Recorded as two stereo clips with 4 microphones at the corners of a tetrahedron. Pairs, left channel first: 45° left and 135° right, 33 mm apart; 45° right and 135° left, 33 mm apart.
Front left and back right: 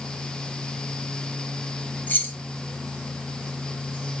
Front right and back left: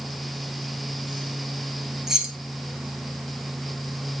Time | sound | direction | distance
2.1 | keys jangling | 60° left | 2.5 m